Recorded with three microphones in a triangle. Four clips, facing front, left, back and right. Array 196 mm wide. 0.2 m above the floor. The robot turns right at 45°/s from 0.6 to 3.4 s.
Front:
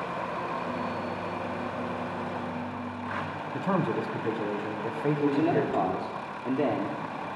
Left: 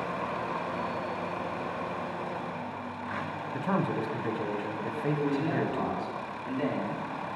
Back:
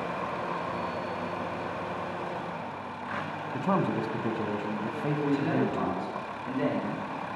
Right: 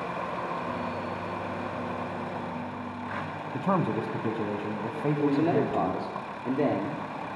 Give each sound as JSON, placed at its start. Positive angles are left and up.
{"t": 3.5, "sound": "a man speaking", "azimuth_deg": -110, "distance_m": 1.3}
{"t": 5.2, "sound": "a man speaking", "azimuth_deg": -65, "distance_m": 3.5}